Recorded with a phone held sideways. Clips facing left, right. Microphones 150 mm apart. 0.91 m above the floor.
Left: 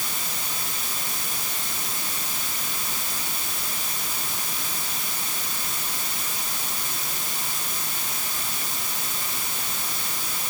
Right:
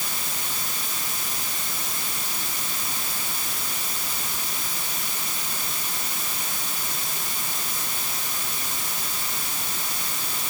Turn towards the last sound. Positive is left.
No sound to turn to.